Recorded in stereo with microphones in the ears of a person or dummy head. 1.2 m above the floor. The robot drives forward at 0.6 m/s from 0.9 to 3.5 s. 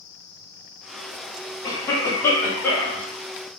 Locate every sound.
1.6 s a cough: 20° left (ahead or behind), 1.0 m; by 3.0 s 10° left (ahead or behind), 1.8 m